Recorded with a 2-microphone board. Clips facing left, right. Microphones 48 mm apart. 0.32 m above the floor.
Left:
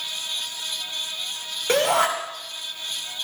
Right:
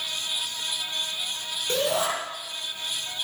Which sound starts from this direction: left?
A shout, at 1.7 s.